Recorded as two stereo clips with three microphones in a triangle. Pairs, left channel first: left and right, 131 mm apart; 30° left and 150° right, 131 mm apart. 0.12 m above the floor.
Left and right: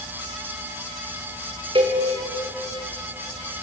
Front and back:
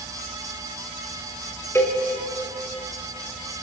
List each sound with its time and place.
1.8 s a cowbell: 40° right, 5 m